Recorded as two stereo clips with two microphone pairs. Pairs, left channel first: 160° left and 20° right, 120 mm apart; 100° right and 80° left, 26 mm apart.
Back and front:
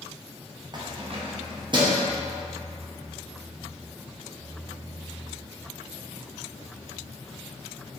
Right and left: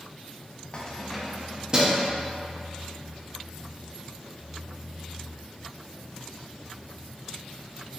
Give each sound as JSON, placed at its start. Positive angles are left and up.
{"t": 0.7, "sound": "keys jangling", "azimuth_deg": -65, "distance_m": 0.7}